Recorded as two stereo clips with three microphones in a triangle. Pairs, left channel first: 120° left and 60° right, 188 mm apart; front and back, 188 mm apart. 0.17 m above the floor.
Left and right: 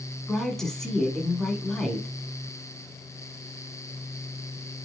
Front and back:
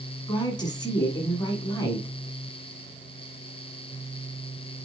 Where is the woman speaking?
35° left, 1.1 m.